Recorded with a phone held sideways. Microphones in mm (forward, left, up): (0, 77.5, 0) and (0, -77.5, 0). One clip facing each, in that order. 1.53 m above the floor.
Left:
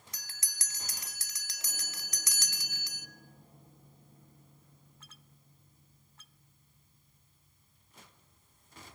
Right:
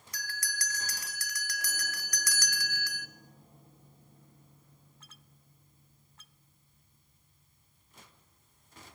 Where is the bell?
25° left (ahead or behind), 1.3 m.